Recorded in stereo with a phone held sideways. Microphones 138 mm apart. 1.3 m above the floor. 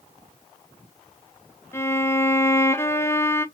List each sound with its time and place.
1.7 s a violin: 15° left (ahead or behind), 0.6 m